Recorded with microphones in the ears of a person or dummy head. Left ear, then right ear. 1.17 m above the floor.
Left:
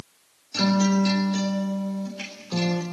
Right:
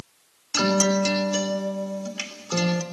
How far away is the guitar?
About 3.5 m.